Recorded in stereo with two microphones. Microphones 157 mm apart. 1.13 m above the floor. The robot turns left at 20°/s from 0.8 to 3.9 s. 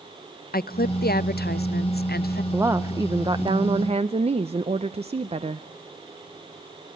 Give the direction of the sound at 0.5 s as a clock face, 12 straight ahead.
8 o'clock.